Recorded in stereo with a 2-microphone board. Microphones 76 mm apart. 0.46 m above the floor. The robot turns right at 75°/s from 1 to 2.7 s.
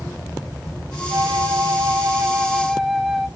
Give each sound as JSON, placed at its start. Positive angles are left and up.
{"t": 1.1, "sound": "a flute", "azimuth_deg": -120, "distance_m": 1.0}